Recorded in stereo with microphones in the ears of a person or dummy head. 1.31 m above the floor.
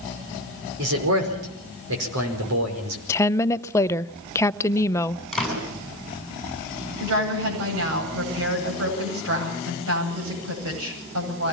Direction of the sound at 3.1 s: 15° left (ahead or behind).